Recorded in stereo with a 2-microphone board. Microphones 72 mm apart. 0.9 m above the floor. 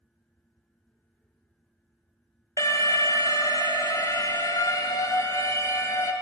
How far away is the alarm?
About 0.8 m.